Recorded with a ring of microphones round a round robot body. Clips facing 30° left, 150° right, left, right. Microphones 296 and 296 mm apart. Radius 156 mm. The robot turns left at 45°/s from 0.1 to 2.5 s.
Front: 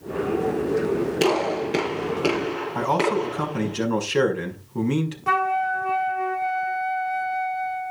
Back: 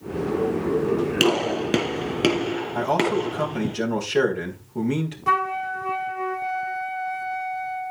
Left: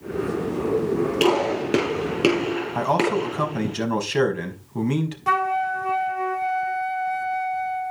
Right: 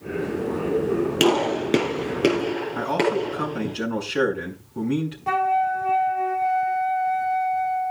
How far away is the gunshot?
About 5.5 m.